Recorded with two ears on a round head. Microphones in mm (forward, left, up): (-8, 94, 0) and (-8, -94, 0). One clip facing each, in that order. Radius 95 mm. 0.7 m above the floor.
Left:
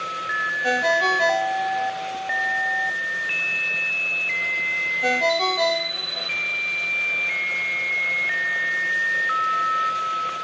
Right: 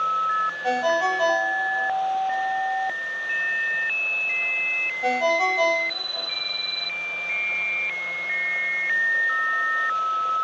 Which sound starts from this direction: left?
A ringtone, at 0.6 s.